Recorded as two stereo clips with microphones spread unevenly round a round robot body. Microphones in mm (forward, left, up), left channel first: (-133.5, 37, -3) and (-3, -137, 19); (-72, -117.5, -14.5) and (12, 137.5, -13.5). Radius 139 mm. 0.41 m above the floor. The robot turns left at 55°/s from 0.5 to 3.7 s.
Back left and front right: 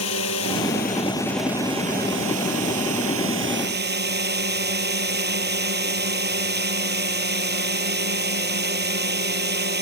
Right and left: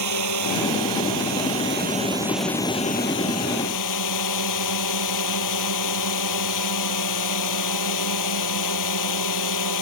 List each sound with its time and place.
0.0 s a drone: 85° left; by 9.8 s 90° right